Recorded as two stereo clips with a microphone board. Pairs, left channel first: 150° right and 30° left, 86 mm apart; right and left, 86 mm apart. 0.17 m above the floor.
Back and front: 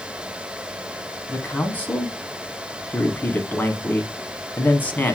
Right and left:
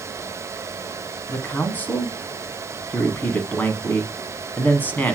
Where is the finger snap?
I don't hear a finger snap.